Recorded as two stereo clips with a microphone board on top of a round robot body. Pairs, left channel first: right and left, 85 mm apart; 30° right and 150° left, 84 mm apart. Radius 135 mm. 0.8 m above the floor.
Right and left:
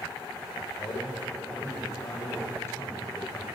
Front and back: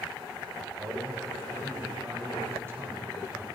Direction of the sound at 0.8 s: 150° right.